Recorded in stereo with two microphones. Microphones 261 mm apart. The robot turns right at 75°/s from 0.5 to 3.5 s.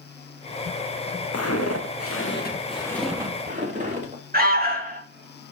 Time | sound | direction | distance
1.3 | footsteps | 75° left (ahead or behind) | 1.6 m
4.3 | an alarm | 40° right (ahead or behind) | 3 m